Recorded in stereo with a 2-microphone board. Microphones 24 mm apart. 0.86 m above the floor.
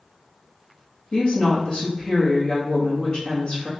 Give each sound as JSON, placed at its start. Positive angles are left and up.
{"t": 1.1, "sound": "a woman speaking", "side_deg": 30, "distance_m": 1.3}